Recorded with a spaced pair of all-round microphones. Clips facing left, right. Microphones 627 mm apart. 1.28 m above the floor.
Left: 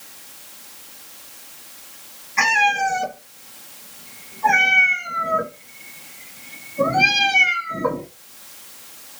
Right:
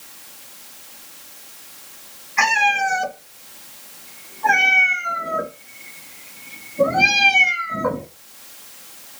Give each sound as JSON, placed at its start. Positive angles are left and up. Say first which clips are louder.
{"t": 2.4, "sound": "a cat meowing", "louder": "even", "side_deg": 55, "distance_m": 2.5}